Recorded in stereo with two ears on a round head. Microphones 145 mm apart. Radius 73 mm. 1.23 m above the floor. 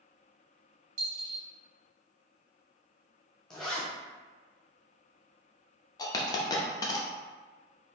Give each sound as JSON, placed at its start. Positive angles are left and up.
{"t": 1.0, "sound": "a dropped coin", "side_deg": -60, "distance_m": 1.9}
{"t": 3.5, "sound": "a zipper", "side_deg": 5, "distance_m": 0.9}
{"t": 6.0, "sound": "a dropped coin", "side_deg": 25, "distance_m": 0.5}